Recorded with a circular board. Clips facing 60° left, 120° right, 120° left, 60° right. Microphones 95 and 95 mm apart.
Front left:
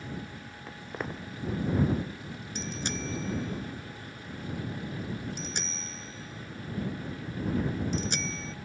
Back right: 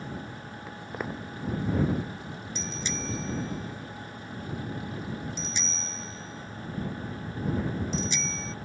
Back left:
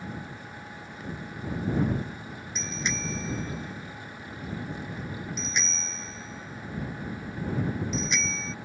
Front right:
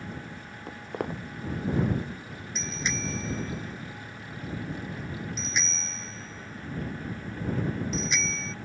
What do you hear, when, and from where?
0.7 s footsteps: 35° right
2.5 s a bicycle bell: 30° left